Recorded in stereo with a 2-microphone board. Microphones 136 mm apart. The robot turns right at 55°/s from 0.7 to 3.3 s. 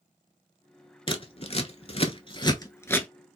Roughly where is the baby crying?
No baby crying in this recording.